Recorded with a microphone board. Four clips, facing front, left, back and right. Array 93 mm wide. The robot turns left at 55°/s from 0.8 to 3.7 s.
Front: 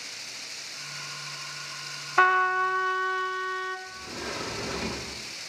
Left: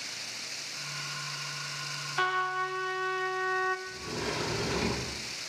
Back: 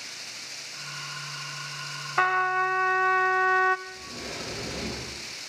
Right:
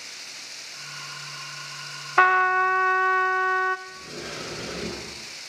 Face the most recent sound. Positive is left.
turn(degrees=65)